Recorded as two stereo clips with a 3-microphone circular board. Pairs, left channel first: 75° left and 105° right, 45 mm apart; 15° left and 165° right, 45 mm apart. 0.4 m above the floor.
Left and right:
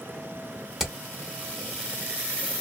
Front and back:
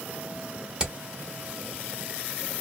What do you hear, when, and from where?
0.8 s hammering: 160° right, 0.7 m